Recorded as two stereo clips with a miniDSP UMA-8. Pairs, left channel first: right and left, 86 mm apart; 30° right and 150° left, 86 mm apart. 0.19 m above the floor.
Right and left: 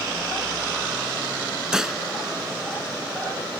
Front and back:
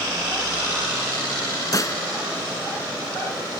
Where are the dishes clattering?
10° left.